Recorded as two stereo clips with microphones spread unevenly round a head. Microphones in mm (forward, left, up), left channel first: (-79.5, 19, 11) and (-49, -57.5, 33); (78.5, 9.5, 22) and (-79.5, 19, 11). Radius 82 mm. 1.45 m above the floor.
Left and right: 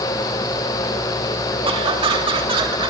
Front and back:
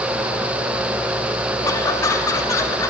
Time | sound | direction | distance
1.6 | laughter | 75° right | 3 m